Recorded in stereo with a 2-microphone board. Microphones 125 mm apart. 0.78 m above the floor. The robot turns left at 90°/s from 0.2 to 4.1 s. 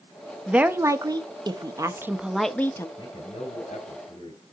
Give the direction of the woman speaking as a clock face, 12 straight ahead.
12 o'clock.